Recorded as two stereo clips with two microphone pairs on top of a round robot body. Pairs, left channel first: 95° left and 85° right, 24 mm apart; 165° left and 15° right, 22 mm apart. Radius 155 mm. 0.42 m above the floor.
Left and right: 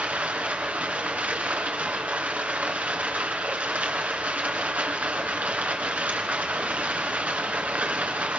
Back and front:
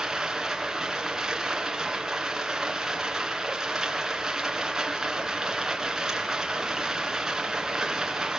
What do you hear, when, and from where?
0.0 s running water: 85° right, 3 m